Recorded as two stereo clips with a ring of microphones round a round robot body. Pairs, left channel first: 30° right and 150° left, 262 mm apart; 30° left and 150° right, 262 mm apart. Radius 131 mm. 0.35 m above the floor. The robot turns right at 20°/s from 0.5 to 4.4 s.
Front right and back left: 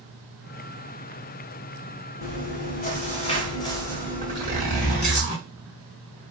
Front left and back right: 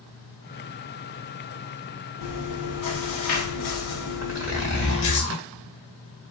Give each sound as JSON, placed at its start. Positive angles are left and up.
{"t": 2.2, "sound": "chewing", "azimuth_deg": 15, "distance_m": 1.1}
{"t": 4.2, "sound": "a zipper", "azimuth_deg": -75, "distance_m": 1.3}